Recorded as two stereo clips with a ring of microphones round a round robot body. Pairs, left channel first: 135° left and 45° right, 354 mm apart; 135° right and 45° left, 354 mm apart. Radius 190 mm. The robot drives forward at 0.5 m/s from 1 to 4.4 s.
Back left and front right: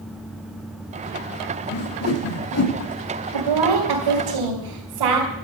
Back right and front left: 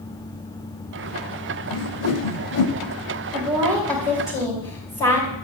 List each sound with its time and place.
1.7 s a whoosh: 170° right, 0.7 m; by 2.7 s 175° right, 1.3 m
3.3 s a woman speaking: 45° right, 3.5 m; by 5.3 s 55° right, 3 m